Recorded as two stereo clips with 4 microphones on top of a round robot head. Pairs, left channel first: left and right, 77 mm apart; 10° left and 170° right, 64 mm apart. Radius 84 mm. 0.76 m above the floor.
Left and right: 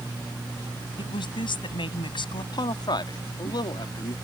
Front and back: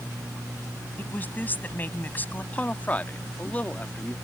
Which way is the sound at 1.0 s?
75° left.